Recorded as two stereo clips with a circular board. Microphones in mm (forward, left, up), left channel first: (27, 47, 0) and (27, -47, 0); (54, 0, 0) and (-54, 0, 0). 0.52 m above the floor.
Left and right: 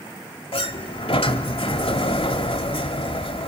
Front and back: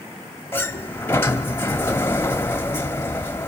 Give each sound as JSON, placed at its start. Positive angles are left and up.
{"t": 0.5, "sound": "a sliding door", "azimuth_deg": 70, "distance_m": 1.3}